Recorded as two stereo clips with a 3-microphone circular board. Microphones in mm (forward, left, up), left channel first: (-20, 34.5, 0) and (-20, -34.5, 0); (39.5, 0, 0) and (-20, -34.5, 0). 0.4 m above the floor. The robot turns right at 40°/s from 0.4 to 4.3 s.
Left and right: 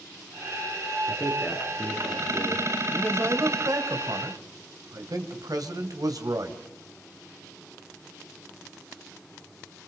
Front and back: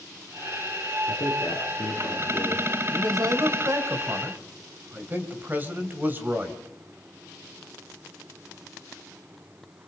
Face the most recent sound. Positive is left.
turn(degrees=-90)